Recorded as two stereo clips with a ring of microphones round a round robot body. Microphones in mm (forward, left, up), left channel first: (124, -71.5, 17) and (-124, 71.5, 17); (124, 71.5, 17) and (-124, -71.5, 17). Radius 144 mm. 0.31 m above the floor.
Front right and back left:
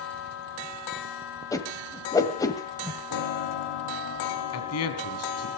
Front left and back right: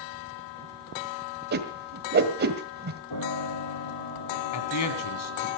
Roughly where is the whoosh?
Right.